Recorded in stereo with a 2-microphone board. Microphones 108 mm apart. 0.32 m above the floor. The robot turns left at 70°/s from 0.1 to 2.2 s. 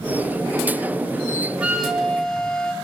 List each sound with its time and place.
1.6 s a flute: 155° right, 1.5 m; by 2.7 s 160° left, 1.5 m